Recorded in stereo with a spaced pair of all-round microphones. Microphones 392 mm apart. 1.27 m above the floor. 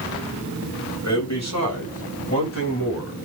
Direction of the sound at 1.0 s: 45° left (ahead or behind).